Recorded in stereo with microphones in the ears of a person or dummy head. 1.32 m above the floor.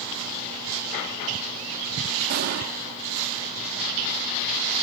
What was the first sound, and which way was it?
An explosion, 45° right (ahead or behind).